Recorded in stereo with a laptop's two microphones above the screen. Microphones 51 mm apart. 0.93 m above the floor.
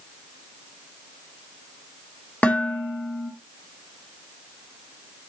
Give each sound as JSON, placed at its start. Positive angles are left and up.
{"t": 2.4, "sound": "dishes clattering", "side_deg": 25, "distance_m": 1.6}